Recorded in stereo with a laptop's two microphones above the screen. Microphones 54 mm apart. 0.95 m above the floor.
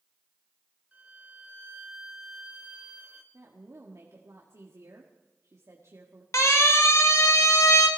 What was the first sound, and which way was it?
A violin, 25° right (ahead or behind).